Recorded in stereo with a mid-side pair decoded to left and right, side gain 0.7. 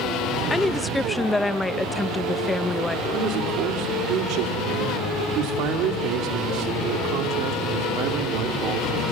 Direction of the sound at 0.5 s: 5° left.